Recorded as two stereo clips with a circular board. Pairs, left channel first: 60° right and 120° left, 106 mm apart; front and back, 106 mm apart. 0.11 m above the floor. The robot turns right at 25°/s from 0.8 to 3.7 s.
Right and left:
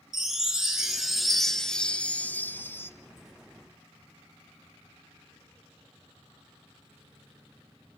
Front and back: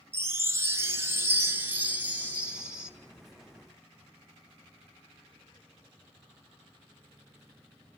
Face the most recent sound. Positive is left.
turn(degrees=-85)